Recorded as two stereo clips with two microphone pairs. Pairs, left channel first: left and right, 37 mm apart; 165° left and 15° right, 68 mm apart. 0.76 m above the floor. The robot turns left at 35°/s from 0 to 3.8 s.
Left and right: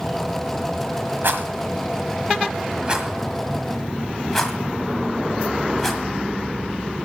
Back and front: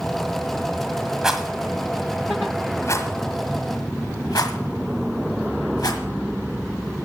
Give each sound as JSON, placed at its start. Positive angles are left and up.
{"t": 1.2, "sound": "a rattle", "azimuth_deg": -100, "distance_m": 1.5}